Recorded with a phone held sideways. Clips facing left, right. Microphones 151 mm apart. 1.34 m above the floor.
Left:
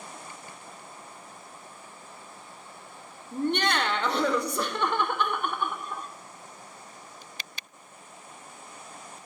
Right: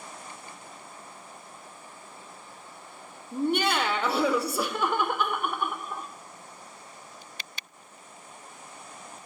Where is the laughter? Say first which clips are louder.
Right 1 dB; 10° right (ahead or behind), 0.7 m.